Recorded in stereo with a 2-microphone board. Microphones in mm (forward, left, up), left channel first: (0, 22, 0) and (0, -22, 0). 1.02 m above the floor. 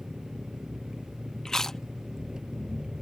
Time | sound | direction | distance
0.0 | an engine running | 15° right (ahead or behind) | ?
1.4 | chewing | 10° left (ahead or behind) | ?